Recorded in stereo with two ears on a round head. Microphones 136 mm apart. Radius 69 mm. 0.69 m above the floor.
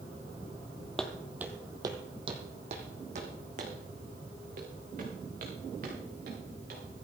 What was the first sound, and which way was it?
Footsteps, 5° left (ahead or behind).